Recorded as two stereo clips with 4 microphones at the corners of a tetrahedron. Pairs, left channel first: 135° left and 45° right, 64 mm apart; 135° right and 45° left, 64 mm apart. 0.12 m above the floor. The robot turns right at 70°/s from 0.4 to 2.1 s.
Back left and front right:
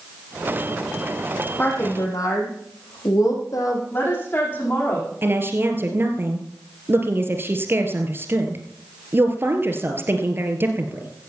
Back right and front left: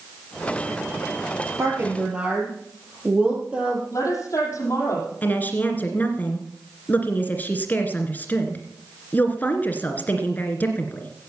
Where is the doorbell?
No doorbell in this recording.